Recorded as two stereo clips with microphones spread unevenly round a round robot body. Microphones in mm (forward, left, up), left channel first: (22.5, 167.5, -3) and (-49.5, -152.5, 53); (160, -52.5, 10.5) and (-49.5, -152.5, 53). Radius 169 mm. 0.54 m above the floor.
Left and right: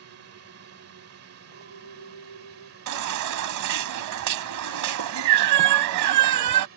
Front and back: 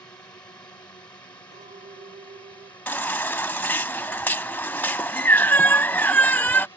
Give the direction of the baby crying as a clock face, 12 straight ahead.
2 o'clock.